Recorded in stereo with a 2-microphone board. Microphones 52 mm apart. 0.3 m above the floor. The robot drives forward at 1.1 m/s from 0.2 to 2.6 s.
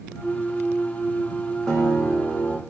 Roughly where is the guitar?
Centre.